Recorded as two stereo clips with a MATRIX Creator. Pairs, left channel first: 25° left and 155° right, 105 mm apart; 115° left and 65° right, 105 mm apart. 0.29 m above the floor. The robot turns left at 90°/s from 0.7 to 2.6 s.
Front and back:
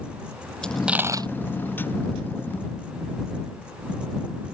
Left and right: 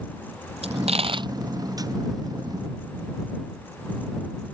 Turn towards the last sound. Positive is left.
turn(degrees=130)